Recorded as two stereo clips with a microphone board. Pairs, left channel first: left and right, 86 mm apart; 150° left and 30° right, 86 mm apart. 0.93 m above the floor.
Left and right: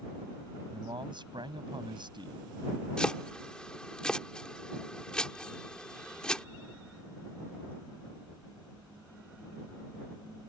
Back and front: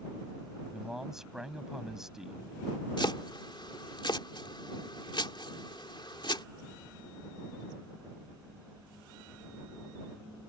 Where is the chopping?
170° left.